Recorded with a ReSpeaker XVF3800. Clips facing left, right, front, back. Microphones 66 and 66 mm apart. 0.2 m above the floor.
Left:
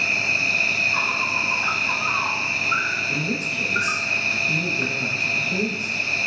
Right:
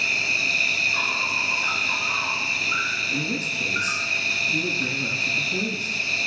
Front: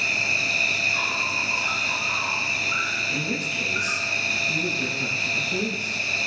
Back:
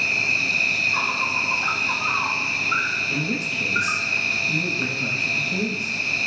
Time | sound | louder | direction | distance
0.0 | an insect | left 2 dB, back 2 dB | 140° left | 1.0 m
3.1 | a man speaking | left 2 dB, back 2 dB | 90° left | 5 m